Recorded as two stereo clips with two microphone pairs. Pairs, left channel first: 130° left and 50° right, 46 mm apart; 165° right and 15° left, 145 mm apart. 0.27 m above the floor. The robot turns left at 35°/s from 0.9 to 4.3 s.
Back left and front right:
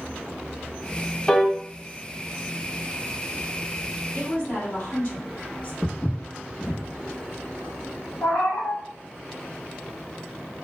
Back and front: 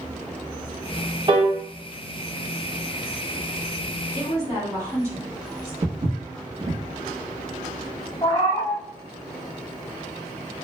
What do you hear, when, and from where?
1.3 s a piano: 50° left, 0.5 m; by 1.5 s 45° left, 0.5 m
4.1 s a woman speaking: 80° left, 1.8 m; by 5.7 s 75° left, 1.8 m
5.8 s footsteps: 55° left, 0.7 m
8.2 s a cat meowing: 135° left, 1.2 m